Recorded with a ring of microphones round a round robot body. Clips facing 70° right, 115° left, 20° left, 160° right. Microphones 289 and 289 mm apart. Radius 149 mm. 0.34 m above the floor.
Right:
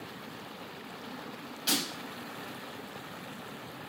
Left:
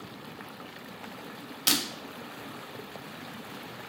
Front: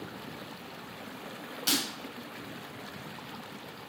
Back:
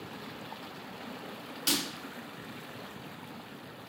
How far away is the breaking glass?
About 0.7 m.